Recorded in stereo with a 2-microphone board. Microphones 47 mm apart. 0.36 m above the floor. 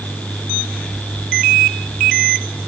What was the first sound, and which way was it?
Only background noise.